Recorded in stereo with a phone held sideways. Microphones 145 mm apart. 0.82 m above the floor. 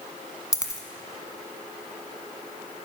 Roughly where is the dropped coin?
Left.